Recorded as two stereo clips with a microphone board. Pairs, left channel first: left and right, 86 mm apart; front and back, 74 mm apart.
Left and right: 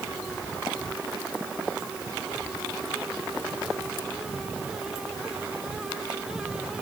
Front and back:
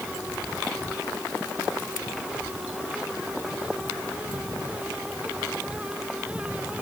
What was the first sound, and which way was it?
Only background noise.